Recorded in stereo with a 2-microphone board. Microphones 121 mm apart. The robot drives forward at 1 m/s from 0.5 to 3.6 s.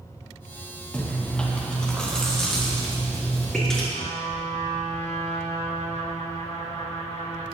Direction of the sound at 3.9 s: 65° left (ahead or behind).